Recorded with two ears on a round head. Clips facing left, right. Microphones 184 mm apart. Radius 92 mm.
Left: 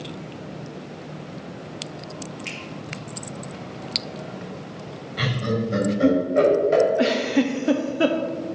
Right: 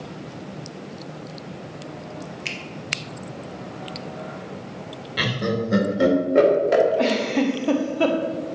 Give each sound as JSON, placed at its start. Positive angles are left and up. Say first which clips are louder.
{"t": 2.5, "sound": "a finger snap", "louder": "right 1 dB", "side_deg": -65, "distance_m": 1.3}
{"t": 5.2, "sound": "laughter", "louder": "right 1 dB", "side_deg": -70, "distance_m": 2.0}
{"t": 7.0, "sound": "a giggle", "louder": "left 1 dB", "side_deg": 10, "distance_m": 0.7}